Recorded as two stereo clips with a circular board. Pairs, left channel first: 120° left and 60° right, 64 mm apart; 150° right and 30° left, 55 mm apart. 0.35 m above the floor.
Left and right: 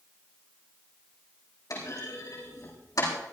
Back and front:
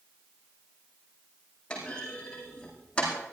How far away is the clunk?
About 8 m.